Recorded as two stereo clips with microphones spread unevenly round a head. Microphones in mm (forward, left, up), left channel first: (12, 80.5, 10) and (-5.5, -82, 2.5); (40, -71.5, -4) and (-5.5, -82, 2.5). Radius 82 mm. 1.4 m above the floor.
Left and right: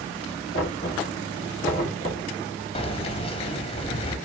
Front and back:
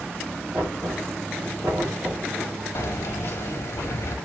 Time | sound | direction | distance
0.5 | knocking | 130° left | 2.5 m
2.8 | keys jangling | 40° left | 0.9 m